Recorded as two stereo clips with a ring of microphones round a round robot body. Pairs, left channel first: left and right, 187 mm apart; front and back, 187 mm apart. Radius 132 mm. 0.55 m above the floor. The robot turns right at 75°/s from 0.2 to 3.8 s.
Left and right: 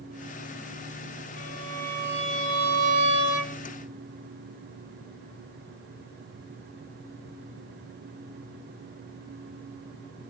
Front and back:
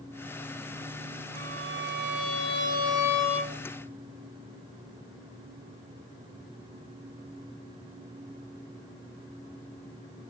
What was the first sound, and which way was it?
A violin, 135° left.